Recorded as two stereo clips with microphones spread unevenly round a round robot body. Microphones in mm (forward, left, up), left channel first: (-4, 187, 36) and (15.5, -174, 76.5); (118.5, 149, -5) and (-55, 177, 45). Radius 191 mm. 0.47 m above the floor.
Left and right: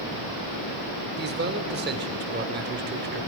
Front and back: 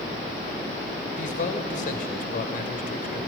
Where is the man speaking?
25° right, 1.8 m.